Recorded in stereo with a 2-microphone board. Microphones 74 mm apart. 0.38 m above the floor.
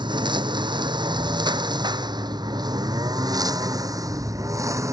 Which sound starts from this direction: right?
A lawn mower, at 0.0 s.